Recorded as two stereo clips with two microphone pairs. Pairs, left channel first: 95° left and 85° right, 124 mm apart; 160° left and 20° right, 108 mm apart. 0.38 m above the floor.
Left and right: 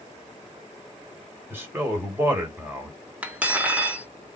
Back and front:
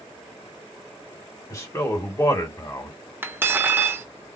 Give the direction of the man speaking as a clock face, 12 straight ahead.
5 o'clock.